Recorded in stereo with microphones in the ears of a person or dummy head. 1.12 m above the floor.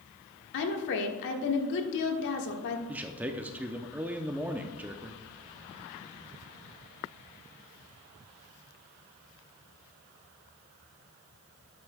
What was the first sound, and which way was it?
A woman speaking, 65° left (ahead or behind).